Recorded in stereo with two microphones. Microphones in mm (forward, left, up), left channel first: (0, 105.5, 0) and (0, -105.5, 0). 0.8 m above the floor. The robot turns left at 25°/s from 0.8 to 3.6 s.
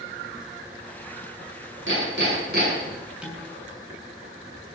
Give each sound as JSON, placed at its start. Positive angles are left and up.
{"t": 1.9, "sound": "hammering", "side_deg": -65, "distance_m": 7.5}
{"t": 3.2, "sound": "dishes clattering", "side_deg": -5, "distance_m": 5.5}